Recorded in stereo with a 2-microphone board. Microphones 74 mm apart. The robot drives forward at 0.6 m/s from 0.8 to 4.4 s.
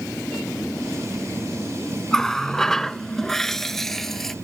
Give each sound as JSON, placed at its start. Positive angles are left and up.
{"t": 2.1, "sound": "a running tap", "side_deg": 5}